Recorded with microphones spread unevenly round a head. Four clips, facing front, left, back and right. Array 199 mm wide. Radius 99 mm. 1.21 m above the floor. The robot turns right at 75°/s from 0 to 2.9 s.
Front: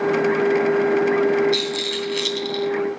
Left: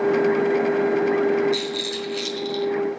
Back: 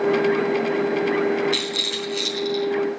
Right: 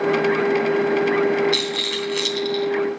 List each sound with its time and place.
1.5 s a rattle: 125° right, 3 m; by 2.7 s 40° right, 3 m